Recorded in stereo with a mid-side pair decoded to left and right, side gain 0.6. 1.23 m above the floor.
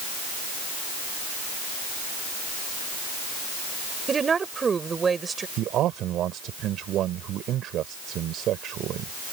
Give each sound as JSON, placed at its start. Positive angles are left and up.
{"t": 4.1, "sound": "a woman speaking", "azimuth_deg": -30}
{"t": 5.6, "sound": "a man speaking", "azimuth_deg": -55}